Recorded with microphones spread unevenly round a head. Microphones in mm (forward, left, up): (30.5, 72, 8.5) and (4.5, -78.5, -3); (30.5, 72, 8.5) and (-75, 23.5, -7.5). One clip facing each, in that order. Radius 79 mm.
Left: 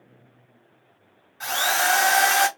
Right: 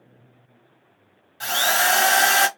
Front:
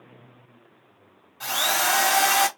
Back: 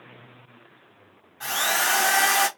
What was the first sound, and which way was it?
A drill, 45° right.